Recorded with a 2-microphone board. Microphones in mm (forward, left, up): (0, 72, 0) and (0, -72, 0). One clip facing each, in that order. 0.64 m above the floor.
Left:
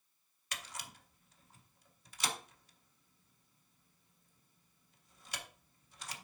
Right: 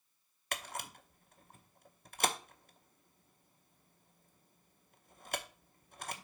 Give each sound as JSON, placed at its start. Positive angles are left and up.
{"t": 0.5, "sound": "a camera shutter", "side_deg": -55, "distance_m": 0.8}